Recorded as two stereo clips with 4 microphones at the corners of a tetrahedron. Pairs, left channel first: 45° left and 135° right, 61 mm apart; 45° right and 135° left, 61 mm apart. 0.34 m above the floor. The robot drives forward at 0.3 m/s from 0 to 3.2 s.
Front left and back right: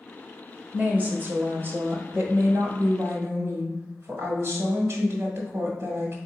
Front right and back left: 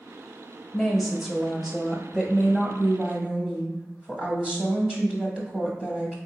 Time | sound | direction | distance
0.7 | a woman speaking | 120° right | 0.9 m